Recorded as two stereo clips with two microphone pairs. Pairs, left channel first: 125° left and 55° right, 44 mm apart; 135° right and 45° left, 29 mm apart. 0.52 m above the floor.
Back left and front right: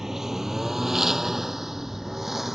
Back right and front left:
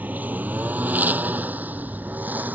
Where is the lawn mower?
30° left.